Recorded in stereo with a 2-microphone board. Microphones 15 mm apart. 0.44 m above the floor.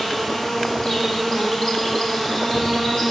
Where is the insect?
55° left (ahead or behind), 3.5 m.